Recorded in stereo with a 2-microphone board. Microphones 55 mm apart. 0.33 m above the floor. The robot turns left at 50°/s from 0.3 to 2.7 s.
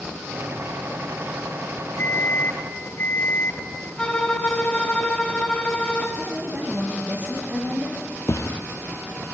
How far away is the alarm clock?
About 5.5 m.